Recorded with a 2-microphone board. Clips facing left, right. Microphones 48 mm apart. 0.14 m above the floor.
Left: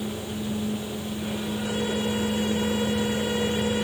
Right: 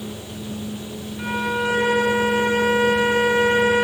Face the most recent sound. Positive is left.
turn(degrees=-80)